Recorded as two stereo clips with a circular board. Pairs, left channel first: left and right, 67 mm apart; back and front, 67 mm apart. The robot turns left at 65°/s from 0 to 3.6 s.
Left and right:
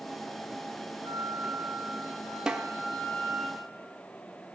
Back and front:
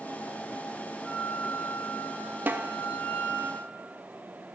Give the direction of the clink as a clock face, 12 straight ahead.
No clink in this recording.